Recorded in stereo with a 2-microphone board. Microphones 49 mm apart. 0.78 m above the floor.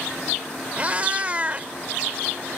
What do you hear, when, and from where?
0.8 s a cat meowing: 30° right (ahead or behind)